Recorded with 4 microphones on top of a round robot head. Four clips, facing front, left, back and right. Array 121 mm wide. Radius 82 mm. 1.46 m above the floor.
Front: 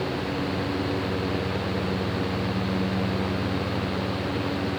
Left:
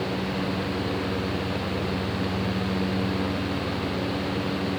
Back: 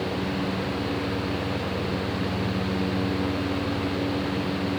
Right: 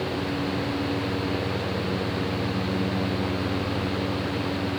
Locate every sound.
Only background noise.